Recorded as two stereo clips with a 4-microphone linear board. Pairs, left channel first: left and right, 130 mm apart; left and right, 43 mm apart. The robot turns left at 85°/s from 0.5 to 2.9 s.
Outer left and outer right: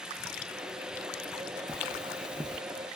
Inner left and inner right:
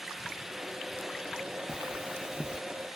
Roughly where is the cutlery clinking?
Right.